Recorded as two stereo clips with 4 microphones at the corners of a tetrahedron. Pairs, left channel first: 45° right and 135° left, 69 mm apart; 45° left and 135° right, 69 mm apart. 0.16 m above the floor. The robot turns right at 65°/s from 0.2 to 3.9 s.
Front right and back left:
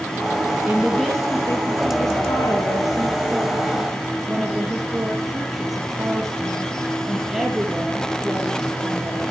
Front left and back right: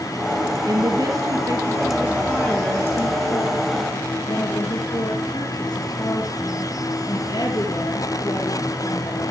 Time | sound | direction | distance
0.7 | a woman speaking | 160° right | 3.5 m